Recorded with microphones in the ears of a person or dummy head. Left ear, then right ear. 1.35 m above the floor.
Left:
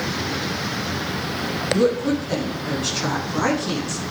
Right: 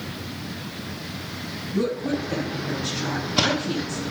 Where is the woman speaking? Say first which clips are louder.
Left 5 dB; 75° left (ahead or behind), 7 m.